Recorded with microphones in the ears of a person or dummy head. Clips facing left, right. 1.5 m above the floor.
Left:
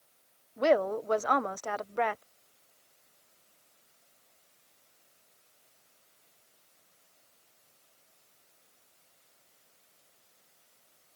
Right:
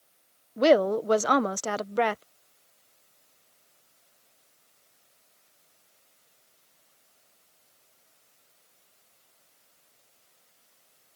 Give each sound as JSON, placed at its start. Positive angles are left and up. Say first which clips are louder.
{"t": 0.6, "sound": "a woman speaking", "louder": "right 5 dB", "side_deg": -40}